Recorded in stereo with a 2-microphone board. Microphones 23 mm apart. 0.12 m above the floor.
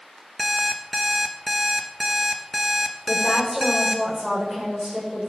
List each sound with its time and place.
0.4 s an alarm clock: 5° right (ahead or behind), 1.1 m
3.1 s a woman speaking: 5° left (ahead or behind), 7 m